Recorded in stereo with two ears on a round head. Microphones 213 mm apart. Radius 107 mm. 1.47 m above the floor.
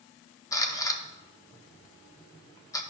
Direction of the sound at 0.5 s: 15° left (ahead or behind).